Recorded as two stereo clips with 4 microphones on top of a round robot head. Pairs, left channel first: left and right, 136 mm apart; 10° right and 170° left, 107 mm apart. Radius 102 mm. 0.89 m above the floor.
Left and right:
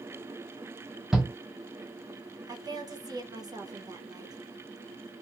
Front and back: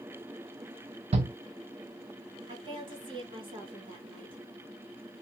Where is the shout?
175° right, 0.5 m.